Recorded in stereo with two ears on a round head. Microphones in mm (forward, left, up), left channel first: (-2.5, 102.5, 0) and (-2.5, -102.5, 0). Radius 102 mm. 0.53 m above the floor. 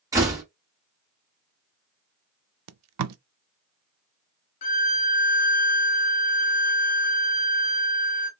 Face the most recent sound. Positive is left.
turn(degrees=35)  # may be behind; listen again after turning